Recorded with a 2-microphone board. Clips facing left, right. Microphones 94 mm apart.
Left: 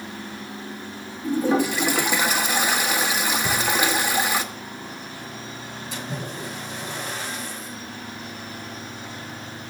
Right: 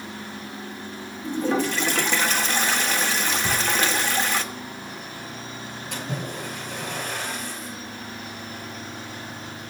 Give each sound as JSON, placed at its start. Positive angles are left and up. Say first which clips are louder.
{"t": 1.2, "sound": "a toilet flushing", "louder": "left 3 dB", "side_deg": 10, "distance_m": 0.9}
{"t": 3.4, "sound": "a drawer", "louder": "left 1 dB", "side_deg": -15, "distance_m": 3.0}
{"t": 5.9, "sound": "a splash", "louder": "right 1 dB", "side_deg": -60, "distance_m": 7.5}